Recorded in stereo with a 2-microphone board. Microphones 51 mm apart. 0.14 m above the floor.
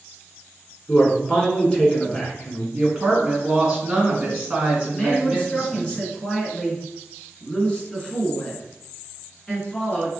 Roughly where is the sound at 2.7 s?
Centre.